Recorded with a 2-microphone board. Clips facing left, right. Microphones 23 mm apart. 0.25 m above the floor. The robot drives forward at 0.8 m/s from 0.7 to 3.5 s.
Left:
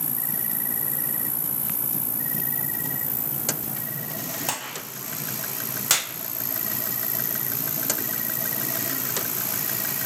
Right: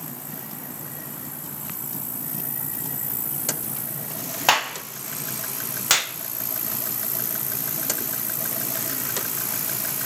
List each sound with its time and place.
0.0 s an insect: 70° left (ahead or behind), 1.8 m; by 10.1 s 35° left (ahead or behind), 3 m
4.5 s a clap: 45° right (ahead or behind), 1.8 m
5.9 s a clap: 15° right (ahead or behind), 0.7 m